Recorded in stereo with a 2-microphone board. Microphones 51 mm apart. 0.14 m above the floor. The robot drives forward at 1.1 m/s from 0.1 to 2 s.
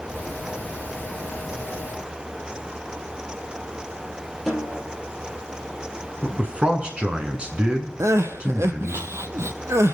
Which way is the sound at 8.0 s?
65° right (ahead or behind).